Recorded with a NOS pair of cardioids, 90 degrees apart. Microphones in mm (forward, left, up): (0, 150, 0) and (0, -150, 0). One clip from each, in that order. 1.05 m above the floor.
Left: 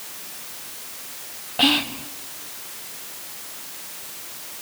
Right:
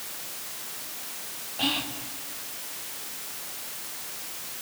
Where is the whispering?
65° left, 1.8 m.